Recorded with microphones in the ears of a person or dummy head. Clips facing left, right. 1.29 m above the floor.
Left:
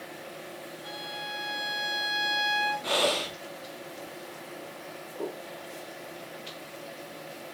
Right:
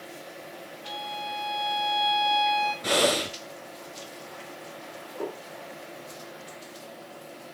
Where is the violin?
20° left (ahead or behind), 3 m.